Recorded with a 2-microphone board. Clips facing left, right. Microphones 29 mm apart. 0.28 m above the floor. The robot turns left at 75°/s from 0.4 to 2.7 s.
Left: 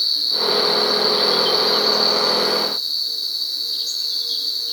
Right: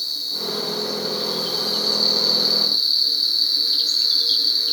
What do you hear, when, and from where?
0.0 s an insect: 125° left, 5.5 m; by 4.7 s 45° right, 5.5 m